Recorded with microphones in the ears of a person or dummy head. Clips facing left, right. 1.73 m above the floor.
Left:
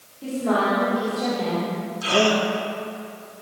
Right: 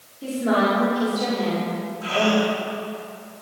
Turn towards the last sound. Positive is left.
turn(degrees=55)  # may be behind; listen again after turning